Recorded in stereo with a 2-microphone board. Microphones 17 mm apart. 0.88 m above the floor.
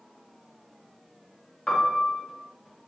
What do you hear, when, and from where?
1.7 s a piano: 65° left (ahead or behind), 0.8 m